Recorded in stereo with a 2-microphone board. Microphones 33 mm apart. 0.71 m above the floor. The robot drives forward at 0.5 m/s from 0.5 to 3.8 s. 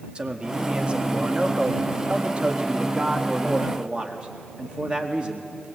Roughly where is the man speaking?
Right.